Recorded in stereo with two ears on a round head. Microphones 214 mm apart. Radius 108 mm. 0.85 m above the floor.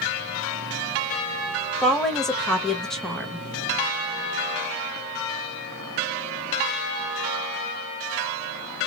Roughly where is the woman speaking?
Centre.